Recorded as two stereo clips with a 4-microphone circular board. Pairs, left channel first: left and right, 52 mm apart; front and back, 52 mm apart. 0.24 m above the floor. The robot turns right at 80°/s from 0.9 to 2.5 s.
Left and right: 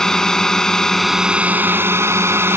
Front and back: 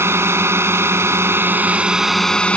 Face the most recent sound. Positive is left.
turn(degrees=-65)